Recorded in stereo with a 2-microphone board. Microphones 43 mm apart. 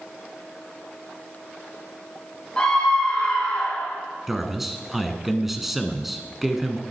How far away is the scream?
About 6 m.